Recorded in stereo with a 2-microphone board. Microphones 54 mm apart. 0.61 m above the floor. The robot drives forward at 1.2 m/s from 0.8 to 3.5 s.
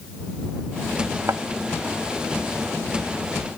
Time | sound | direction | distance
1.3 | a thud | 75° right (ahead or behind) | ?